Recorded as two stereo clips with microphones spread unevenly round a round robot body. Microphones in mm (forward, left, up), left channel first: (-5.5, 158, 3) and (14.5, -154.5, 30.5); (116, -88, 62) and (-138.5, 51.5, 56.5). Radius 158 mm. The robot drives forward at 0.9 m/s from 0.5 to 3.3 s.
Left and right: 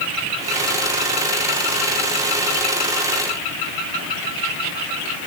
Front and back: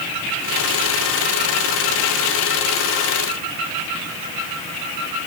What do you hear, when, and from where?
Only background noise.